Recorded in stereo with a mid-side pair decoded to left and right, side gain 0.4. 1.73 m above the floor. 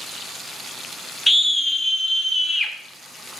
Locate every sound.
1.3 s a scream: 5° left, 1.4 m; by 2.7 s 25° left, 3.5 m